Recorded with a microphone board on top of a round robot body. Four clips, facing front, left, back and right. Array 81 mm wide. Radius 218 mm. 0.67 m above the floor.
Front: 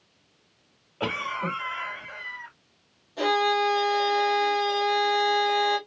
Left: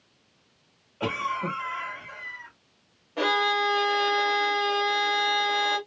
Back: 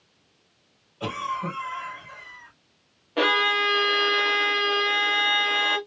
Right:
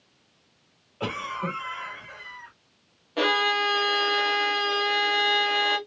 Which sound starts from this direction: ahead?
A cough, at 1.0 s.